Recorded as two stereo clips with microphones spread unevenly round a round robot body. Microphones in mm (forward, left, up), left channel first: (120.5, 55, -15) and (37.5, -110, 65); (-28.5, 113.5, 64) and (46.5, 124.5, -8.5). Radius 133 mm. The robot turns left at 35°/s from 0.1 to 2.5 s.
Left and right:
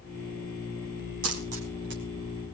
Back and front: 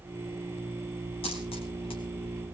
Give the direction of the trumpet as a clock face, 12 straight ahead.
I don't hear a trumpet.